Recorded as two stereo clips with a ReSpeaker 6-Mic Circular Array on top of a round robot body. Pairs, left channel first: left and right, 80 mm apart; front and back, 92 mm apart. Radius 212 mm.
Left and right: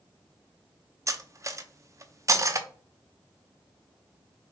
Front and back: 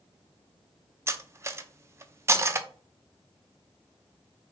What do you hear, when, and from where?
1.1 s cutlery clinking: 125° right, 0.6 m